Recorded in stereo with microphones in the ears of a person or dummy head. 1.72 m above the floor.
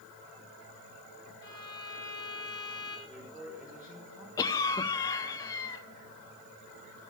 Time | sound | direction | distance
1.4 | a violin | 30° left (ahead or behind) | 7.5 m
3.1 | a man speaking | centre (ahead or behind) | 5 m
4.4 | a cough | 15° left (ahead or behind) | 0.8 m